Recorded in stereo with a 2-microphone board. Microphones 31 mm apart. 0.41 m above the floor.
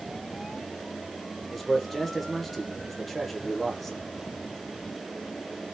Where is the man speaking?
Centre (ahead or behind), 0.9 m.